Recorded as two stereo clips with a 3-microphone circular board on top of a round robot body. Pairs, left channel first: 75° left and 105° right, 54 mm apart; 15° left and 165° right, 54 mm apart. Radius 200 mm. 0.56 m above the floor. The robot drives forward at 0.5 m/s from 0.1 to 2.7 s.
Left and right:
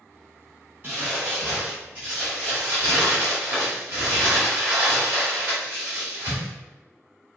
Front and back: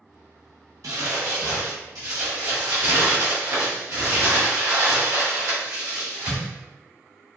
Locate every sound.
0.8 s crumpling: 160° right, 0.7 m; by 6.5 s 170° right, 1.6 m